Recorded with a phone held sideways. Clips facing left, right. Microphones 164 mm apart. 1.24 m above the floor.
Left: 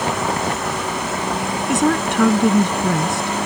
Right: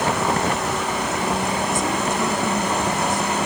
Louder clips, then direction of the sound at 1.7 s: Left 5 dB; 75° left (ahead or behind).